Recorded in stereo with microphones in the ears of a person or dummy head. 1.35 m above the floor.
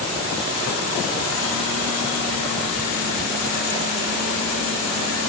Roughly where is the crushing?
I don't hear crushing.